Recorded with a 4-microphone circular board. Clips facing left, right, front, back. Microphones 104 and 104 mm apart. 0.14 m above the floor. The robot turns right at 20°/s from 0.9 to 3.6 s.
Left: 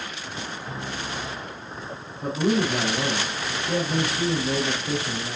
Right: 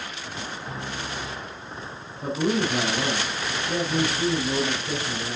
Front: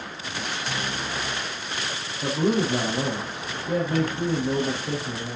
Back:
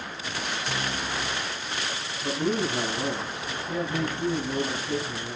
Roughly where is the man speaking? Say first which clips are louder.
Left 1 dB, front 4 dB; ahead.